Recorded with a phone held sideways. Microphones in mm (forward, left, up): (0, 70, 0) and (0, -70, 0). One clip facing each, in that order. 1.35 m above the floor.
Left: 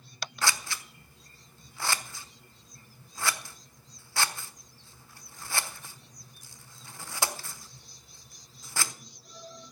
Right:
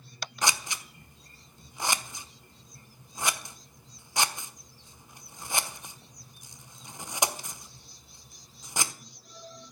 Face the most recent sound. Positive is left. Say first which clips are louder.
# right 1 dB
turn(degrees=-20)  # may be behind; listen again after turning